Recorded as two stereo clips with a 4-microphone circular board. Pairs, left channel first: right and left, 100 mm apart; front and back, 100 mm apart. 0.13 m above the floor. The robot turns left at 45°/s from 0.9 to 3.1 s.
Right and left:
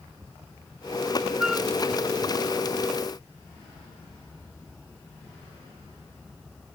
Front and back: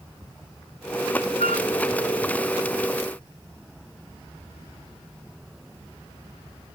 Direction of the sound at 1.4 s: 10° left.